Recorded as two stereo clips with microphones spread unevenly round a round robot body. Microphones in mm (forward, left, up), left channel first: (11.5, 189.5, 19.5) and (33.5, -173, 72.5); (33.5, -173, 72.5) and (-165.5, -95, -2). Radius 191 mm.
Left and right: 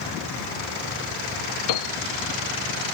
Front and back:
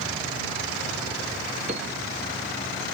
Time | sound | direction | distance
1.7 | a piano | 85° left | ?